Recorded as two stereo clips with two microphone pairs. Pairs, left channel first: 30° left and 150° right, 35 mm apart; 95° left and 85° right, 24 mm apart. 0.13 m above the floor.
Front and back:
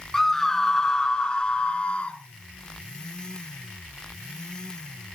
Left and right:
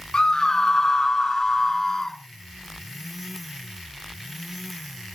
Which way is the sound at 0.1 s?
105° left.